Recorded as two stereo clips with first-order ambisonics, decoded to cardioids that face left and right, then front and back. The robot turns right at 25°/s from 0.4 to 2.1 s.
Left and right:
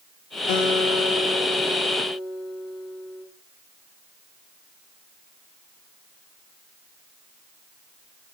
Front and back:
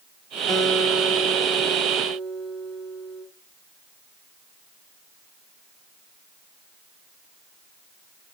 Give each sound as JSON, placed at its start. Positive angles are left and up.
{"t": 0.5, "sound": "a guitar", "azimuth_deg": 85, "distance_m": 1.8}